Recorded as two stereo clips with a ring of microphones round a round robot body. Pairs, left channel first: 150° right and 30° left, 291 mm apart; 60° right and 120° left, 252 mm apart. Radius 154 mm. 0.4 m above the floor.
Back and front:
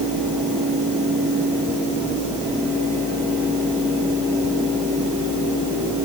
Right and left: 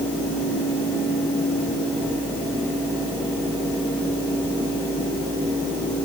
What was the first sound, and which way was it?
Only background noise.